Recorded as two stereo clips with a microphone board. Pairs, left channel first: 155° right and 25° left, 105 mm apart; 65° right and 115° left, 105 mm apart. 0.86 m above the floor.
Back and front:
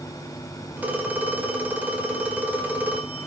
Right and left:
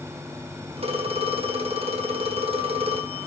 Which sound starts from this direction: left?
A phone ringing, at 0.8 s.